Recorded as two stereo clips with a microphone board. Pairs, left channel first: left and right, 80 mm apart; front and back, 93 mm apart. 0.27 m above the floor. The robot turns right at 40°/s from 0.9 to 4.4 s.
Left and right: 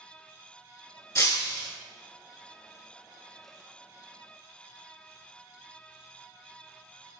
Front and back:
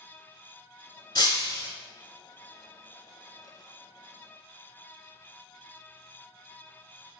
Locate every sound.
1.1 s breaking glass: 40° left, 0.9 m; by 1.7 s 60° left, 0.9 m